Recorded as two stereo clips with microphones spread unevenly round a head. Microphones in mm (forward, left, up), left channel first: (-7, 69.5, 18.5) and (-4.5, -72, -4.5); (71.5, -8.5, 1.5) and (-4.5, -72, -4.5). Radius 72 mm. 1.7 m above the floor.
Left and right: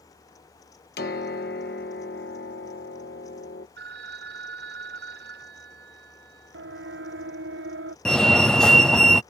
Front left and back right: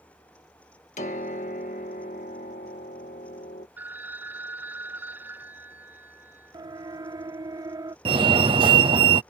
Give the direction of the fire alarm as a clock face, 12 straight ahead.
6 o'clock.